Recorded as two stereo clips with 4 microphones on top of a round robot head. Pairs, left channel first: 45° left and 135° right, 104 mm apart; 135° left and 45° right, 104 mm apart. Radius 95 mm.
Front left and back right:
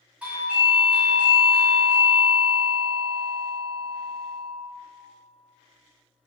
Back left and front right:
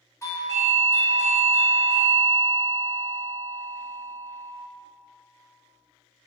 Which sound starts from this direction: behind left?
A doorbell, at 0.2 s.